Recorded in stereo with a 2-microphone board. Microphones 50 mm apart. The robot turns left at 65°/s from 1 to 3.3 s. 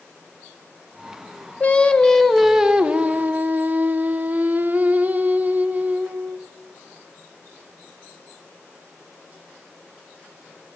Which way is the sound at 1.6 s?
50° left.